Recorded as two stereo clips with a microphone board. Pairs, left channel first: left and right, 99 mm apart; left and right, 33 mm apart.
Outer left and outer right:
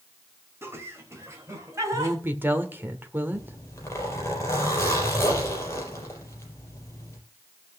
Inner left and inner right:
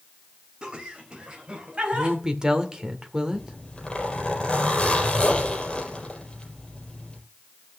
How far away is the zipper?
About 4 m.